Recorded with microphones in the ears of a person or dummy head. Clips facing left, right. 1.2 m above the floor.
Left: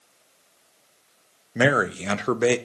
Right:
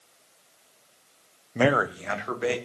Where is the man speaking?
5° left (ahead or behind), 0.7 m; by 2.6 s 55° left (ahead or behind), 1.0 m.